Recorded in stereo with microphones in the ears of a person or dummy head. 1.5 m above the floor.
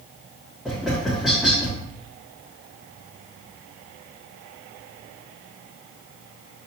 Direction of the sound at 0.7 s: Centre (ahead or behind).